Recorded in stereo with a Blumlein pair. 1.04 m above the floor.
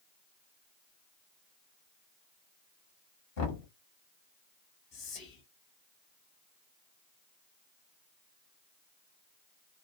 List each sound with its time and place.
3.4 s knocking: 50° left, 1.3 m
4.9 s whispering: 35° left, 1.4 m